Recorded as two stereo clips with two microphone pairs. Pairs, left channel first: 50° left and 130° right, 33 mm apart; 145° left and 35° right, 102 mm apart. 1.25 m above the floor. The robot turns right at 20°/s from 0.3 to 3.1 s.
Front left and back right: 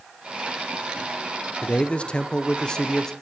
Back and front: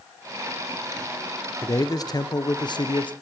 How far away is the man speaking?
About 0.6 m.